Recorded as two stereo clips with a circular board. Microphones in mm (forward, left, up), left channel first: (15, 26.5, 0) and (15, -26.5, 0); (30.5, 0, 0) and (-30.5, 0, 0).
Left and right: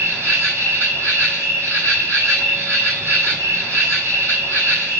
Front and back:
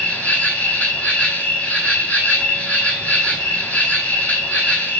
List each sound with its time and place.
0.0 s an insect: 60° right, 3 m